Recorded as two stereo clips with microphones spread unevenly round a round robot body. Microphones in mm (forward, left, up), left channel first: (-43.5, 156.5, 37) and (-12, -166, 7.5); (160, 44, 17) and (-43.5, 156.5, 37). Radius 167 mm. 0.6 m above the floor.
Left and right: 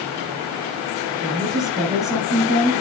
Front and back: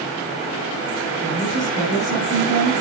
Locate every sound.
1.2 s a woman speaking: 175° right, 6 m